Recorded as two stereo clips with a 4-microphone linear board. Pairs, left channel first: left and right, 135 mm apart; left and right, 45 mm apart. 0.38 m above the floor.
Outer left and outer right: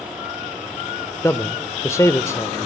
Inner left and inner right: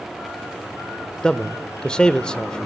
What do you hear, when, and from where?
1.2 s a man speaking: 20° left (ahead or behind), 0.8 m